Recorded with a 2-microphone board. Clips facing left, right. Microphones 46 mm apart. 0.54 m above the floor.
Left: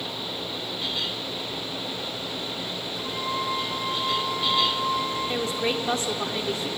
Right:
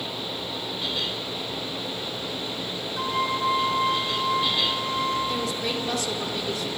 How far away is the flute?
About 3.5 m.